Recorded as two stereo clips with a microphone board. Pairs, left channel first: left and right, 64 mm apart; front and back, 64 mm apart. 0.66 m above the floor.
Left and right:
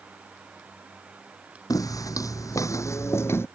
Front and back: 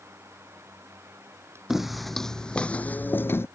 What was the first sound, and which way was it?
Footsteps, 95° left.